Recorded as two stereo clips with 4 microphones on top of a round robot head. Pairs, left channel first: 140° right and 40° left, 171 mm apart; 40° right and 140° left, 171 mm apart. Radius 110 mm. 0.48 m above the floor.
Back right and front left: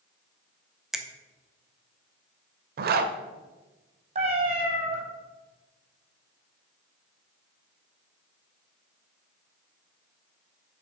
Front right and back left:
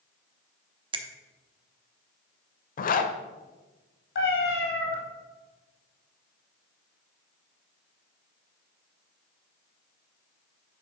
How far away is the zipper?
About 0.6 m.